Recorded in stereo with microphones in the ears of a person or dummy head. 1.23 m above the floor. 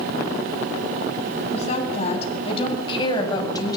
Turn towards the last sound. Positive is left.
turn(degrees=25)  # may be behind; listen again after turning